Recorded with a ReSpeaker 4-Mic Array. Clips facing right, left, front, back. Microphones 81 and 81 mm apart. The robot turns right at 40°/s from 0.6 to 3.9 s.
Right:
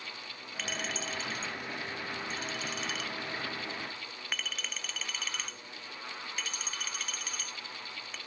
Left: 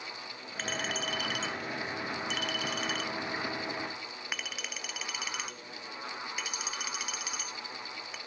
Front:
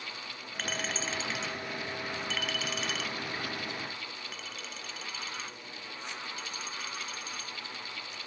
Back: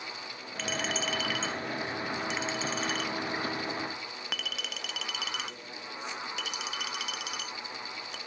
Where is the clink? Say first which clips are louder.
Left 3 dB, back 3 dB; 40° left; by 8.2 s 170° left.